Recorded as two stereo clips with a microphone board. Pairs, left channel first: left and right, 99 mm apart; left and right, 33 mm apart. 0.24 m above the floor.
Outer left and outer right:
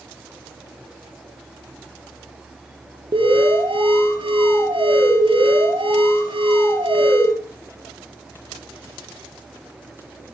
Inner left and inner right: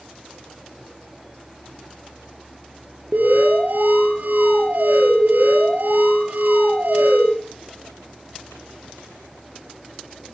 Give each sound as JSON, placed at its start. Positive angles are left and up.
{"t": 3.1, "sound": "an alarm", "side_deg": -55, "distance_m": 4.5}